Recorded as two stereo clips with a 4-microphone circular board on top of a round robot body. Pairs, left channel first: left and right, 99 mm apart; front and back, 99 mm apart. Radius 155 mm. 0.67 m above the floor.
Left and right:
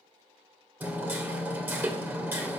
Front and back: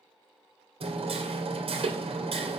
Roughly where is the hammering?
Behind.